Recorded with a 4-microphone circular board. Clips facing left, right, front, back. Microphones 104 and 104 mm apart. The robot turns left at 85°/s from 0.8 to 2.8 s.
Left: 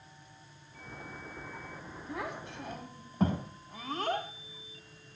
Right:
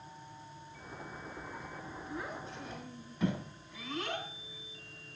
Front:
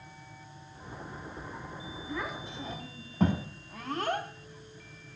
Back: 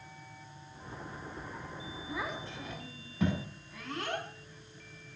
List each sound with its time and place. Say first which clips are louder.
2.1 s a child speaking: left 4 dB, front 1 dB; 105° left, 5.5 m; by 5.2 s 45° left, 5.5 m